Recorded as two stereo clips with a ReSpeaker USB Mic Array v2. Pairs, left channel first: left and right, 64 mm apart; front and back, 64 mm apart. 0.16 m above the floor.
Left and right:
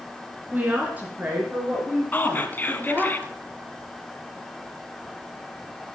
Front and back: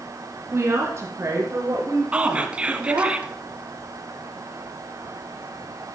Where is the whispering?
120° left, 1.2 m.